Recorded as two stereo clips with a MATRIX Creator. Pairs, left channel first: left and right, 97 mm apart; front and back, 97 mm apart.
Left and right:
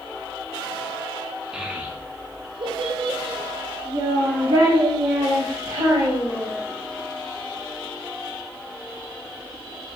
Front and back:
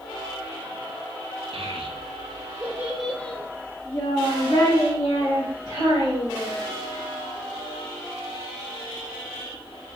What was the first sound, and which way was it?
A child speaking, 170° right.